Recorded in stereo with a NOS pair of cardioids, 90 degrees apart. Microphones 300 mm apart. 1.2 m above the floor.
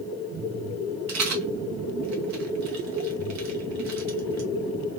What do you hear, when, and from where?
1.1 s a rattle: 65° right, 1.3 m